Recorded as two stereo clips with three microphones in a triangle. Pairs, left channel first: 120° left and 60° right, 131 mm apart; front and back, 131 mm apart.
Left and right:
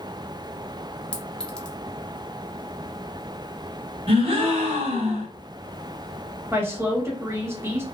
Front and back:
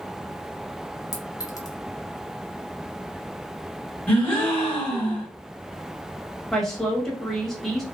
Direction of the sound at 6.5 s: 85° right.